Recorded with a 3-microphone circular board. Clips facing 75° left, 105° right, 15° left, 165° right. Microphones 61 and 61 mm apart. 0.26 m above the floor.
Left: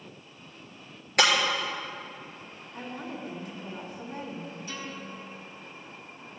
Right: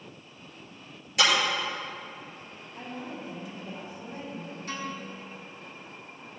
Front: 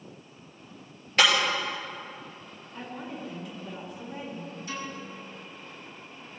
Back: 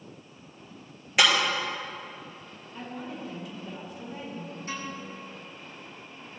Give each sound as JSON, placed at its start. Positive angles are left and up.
{"t": 1.2, "sound": "breaking glass", "azimuth_deg": 115, "distance_m": 3.5}
{"t": 2.7, "sound": "a woman speaking", "azimuth_deg": 105, "distance_m": 3.0}
{"t": 4.7, "sound": "a piano", "azimuth_deg": -120, "distance_m": 2.5}